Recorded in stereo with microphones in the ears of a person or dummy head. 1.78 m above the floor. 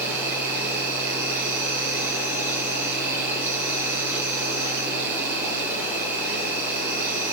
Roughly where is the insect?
Centre.